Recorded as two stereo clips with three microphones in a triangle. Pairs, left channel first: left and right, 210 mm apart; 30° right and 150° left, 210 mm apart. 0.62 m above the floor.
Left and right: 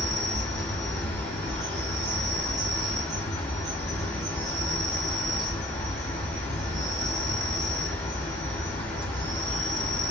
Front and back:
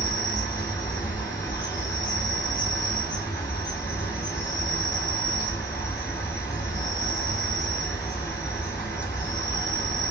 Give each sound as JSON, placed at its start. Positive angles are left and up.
{"t": 0.0, "sound": "an insect", "azimuth_deg": 40, "distance_m": 1.5}